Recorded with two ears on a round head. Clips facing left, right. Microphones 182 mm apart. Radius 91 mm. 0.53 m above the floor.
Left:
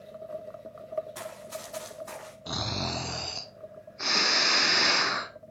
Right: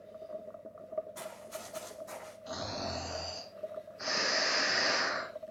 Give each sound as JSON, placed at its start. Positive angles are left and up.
{"t": 1.1, "sound": "running footsteps", "side_deg": 75, "distance_m": 7.5}
{"t": 2.5, "sound": "snoring", "side_deg": 70, "distance_m": 1.1}